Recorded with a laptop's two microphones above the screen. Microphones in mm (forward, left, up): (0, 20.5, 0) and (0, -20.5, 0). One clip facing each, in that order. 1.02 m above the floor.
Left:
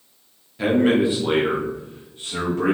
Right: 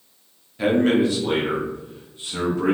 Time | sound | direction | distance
0.6 | a man speaking | centre (ahead or behind) | 0.5 m